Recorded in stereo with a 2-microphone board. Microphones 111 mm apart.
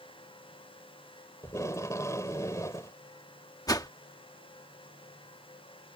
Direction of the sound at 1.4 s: 25° left (ahead or behind).